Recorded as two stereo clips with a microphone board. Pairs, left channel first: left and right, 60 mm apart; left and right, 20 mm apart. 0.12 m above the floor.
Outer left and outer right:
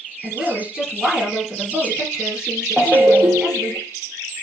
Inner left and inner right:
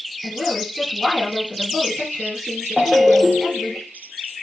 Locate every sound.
0.2 s a woman speaking: 15° right (ahead or behind), 2.5 m
2.8 s a ringtone: 35° right (ahead or behind), 1.4 m